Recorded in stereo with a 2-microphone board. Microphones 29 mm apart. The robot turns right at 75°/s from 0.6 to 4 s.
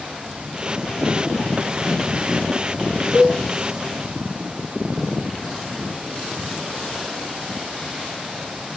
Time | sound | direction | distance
3.1 | a cowbell | 30° left (ahead or behind) | 1.1 m